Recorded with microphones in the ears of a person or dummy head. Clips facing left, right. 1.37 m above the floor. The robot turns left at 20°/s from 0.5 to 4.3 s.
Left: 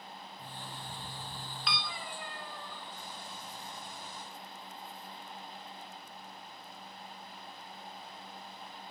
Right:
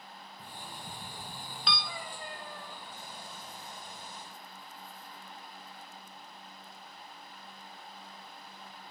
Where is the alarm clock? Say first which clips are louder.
Right 1 dB; 10° right (ahead or behind), 0.8 m; by 1.8 s 30° right (ahead or behind), 0.8 m.